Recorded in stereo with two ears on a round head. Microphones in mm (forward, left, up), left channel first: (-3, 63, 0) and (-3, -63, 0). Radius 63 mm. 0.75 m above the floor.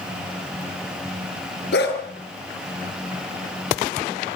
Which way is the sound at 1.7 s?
90° left.